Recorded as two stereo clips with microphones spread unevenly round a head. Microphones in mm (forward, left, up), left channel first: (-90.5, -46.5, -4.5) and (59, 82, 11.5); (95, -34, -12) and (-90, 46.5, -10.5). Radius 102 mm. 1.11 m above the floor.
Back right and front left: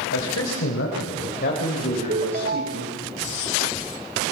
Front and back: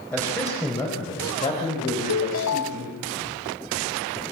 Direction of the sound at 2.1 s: 10° right.